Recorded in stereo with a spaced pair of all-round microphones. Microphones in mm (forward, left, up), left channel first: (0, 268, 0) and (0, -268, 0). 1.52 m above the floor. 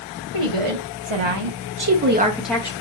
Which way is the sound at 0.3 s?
75° right (ahead or behind).